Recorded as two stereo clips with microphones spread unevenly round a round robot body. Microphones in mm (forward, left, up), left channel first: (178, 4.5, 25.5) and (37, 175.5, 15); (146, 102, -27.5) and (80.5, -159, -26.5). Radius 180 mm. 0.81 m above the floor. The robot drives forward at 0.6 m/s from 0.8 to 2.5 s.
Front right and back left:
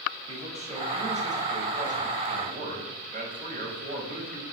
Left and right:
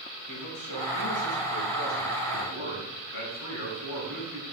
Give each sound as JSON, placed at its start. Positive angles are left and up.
{"t": 0.3, "sound": "a man speaking", "azimuth_deg": 70, "distance_m": 6.0}